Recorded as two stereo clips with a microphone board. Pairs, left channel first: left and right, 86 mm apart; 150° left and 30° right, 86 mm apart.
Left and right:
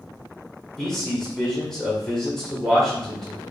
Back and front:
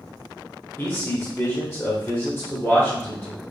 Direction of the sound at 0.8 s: 170° left.